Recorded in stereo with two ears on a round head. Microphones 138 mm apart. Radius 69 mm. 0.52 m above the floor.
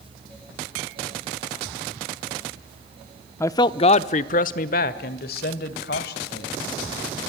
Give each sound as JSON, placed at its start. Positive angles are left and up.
{"t": 3.4, "sound": "a man speaking", "side_deg": 15, "distance_m": 0.7}